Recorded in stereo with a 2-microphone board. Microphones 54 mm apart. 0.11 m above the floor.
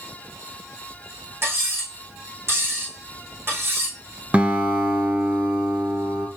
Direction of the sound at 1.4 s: 45° right (ahead or behind).